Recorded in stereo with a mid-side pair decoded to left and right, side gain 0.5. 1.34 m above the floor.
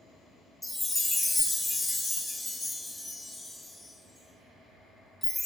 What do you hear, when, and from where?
0.6 s a chime: 15° left, 0.5 m